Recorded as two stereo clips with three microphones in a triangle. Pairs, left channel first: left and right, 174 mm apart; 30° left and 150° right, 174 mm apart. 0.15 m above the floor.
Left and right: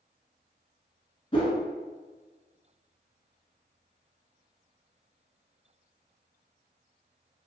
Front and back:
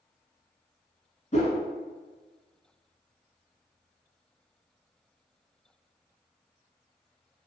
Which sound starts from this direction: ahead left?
A whoosh, at 1.3 s.